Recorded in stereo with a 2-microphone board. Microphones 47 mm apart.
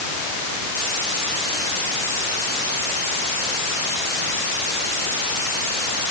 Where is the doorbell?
No doorbell in this recording.